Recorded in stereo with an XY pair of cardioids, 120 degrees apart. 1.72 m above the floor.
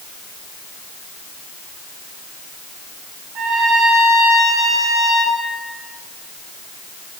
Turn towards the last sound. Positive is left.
turn(degrees=-70)